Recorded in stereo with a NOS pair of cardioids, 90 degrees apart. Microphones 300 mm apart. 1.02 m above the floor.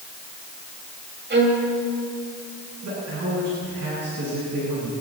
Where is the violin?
35° right, 6 m.